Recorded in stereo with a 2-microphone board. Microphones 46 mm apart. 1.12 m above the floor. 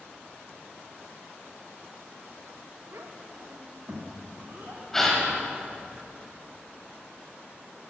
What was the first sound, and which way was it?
A child speaking, 85° right.